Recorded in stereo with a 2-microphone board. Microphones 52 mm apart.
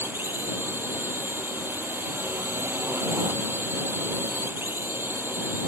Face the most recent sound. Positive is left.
turn(degrees=-45)  # may be behind; listen again after turning